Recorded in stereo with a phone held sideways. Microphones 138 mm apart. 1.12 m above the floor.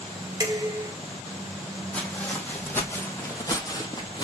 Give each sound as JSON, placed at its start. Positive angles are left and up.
{"t": 0.4, "sound": "dishes clattering", "side_deg": -25, "distance_m": 2.0}
{"t": 1.9, "sound": "footsteps", "side_deg": 10, "distance_m": 2.5}